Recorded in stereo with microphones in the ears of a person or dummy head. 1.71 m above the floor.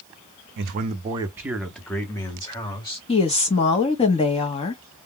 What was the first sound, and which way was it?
A man speaking, 60° right (ahead or behind).